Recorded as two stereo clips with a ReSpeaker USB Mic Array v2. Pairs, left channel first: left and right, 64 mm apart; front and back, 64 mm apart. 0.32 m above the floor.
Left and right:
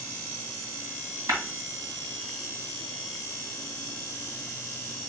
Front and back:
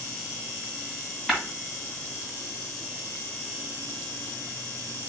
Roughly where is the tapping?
Right.